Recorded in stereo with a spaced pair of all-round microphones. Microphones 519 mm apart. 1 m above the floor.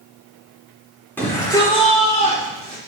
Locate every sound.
1.2 s a shout: 5° left (ahead or behind), 3.5 m; by 2.8 s 20° left (ahead or behind), 3.5 m